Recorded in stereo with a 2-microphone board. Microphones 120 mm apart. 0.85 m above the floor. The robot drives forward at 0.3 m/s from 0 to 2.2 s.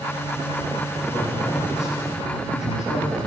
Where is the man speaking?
5° right (ahead or behind), 5.5 m.